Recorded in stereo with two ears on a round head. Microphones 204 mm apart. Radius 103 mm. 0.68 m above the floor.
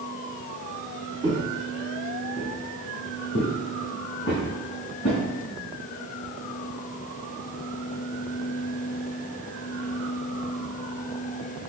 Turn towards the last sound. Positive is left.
turn(degrees=55)  # may be behind; listen again after turning